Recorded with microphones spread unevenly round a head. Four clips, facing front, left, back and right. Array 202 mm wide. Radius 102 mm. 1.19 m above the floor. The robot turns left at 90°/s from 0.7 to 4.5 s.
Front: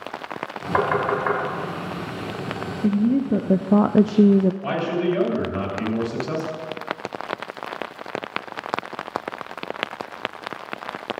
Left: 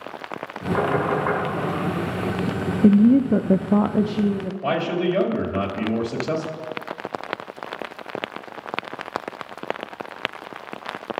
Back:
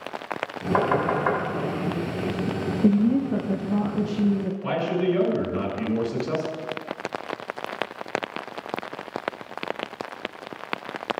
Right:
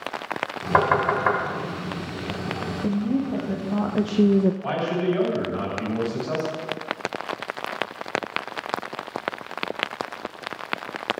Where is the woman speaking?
110° left, 0.5 m; by 4.5 s 40° right, 0.5 m.